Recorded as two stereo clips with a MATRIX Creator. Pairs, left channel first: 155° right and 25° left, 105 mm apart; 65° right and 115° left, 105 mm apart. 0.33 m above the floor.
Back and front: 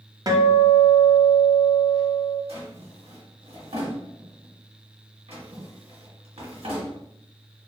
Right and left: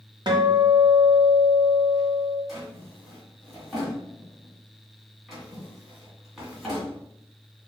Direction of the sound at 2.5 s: 20° left.